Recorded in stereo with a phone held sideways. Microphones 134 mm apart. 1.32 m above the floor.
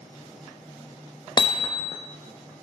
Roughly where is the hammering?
Left.